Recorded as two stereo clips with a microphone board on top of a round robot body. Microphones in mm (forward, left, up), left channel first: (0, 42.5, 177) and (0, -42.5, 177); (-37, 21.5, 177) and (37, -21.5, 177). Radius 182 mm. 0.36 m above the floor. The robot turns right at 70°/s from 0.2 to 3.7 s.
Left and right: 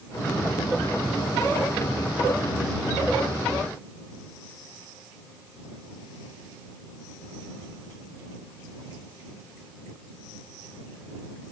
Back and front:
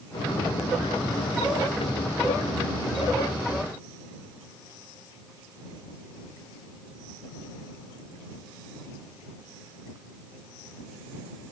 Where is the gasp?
No gasp in this recording.